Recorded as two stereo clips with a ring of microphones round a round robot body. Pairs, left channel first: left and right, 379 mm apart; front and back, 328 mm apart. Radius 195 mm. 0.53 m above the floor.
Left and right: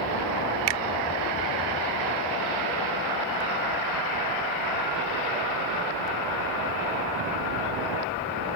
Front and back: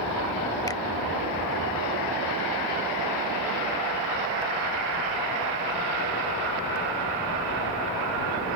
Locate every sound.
0.7 s a finger snap: 80° right